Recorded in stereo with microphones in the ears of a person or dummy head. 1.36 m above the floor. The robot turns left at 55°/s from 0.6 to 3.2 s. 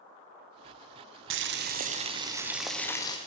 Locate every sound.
1.3 s boiling: 105° right, 0.5 m; by 3.2 s 155° left, 0.5 m